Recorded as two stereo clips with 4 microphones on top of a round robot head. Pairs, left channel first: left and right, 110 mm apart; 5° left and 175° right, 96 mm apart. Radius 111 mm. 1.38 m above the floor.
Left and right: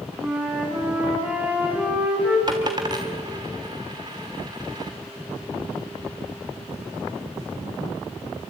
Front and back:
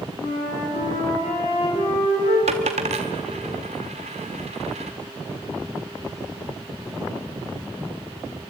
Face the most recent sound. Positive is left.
turn(degrees=-155)